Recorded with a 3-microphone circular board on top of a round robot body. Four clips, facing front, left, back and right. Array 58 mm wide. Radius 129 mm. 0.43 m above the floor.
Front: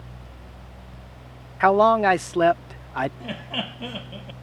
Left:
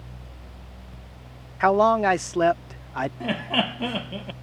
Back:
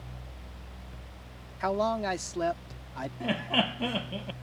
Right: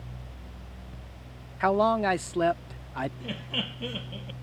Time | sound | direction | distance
1.6 | a man speaking | 20° left | ?
3.2 | laughter | 105° left | ?